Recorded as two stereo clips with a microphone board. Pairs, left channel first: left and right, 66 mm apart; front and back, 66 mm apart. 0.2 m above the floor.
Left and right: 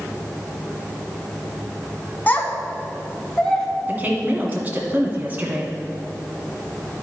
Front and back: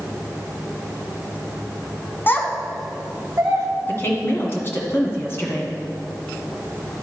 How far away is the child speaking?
About 0.9 m.